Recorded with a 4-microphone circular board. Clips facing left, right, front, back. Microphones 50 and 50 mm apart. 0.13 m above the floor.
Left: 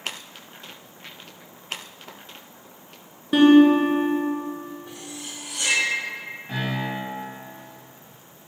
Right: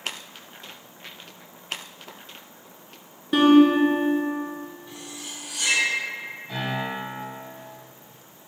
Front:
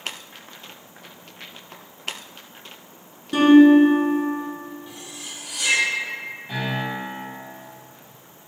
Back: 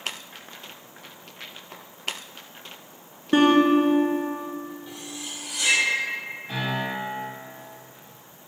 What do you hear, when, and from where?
3.3 s a guitar: 175° left, 0.5 m
4.9 s cutlery clinking: 85° left, 1.8 m
6.5 s a piano: 80° left, 1.8 m